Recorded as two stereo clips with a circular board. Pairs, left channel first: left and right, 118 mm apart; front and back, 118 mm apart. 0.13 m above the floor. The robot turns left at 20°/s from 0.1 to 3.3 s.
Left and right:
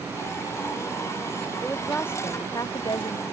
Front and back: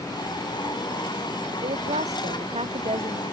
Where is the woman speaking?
170° left; by 3.2 s 140° left.